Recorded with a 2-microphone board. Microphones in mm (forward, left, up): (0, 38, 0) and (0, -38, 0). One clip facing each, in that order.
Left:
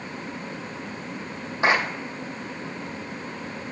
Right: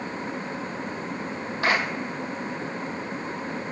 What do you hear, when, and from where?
1.6 s a clap: 20° left (ahead or behind), 3.5 m